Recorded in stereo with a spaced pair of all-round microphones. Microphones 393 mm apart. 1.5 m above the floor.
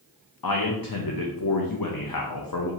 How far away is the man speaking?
About 0.6 m.